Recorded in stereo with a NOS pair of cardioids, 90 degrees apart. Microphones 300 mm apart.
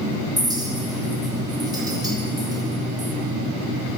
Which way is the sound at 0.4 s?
15° right.